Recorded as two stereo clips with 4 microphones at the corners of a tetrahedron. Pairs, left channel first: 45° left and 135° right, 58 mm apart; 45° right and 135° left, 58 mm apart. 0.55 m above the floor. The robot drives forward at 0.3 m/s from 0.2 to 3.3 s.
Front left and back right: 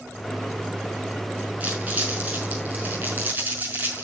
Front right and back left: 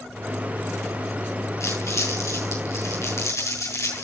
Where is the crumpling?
70° right, 5.5 m; by 4.0 s 75° right, 5 m.